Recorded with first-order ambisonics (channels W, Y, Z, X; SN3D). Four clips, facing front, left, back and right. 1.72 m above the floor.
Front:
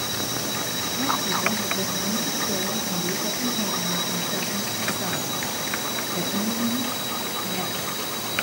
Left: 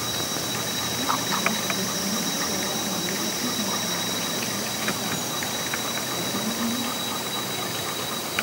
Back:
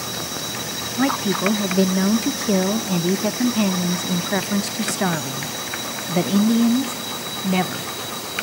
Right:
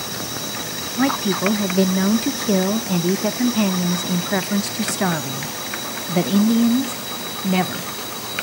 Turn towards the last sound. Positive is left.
turn(degrees=-125)